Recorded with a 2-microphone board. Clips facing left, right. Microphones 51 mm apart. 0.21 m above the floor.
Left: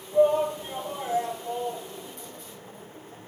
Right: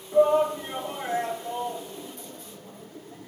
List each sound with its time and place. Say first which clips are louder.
0.1 s a shout: right 1 dB; 65° right (ahead or behind), 3.5 m